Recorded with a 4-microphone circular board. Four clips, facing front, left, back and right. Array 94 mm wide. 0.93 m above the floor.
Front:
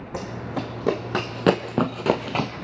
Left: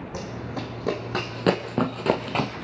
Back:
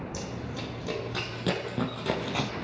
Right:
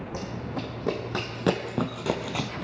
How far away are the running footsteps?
About 2.0 m.